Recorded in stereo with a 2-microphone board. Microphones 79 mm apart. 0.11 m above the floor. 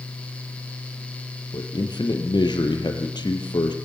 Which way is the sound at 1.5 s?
65° left (ahead or behind).